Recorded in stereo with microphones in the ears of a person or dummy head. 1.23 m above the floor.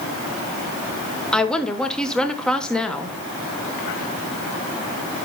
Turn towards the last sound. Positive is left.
turn(degrees=5)  # may be behind; listen again after turning